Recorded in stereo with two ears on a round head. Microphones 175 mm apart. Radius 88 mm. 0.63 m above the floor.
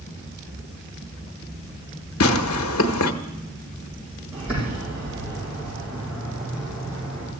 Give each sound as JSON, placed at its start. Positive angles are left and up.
{"t": 2.2, "sound": "tearing paper", "side_deg": 75, "distance_m": 1.0}
{"t": 4.3, "sound": "a bird", "side_deg": -5, "distance_m": 8.0}